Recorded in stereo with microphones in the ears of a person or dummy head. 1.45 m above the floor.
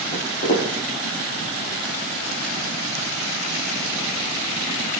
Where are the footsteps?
45° left (ahead or behind), 3 m.